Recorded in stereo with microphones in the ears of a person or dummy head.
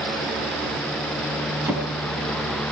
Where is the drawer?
10° right (ahead or behind), 6 m.